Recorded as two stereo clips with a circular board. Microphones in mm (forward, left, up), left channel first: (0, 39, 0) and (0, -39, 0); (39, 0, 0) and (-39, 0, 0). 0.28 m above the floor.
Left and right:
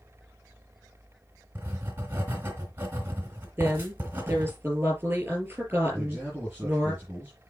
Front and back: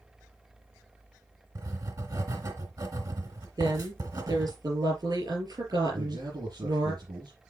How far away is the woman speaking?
About 6.5 m.